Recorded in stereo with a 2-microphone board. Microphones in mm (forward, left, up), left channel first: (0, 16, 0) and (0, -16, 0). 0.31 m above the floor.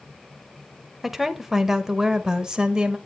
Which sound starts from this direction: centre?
A woman speaking, at 1.0 s.